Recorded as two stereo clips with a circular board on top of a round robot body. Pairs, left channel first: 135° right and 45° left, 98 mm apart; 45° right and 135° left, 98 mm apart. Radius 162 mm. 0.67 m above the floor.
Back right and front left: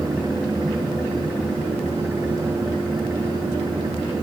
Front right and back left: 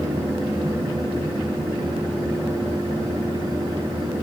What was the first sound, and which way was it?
Only background noise.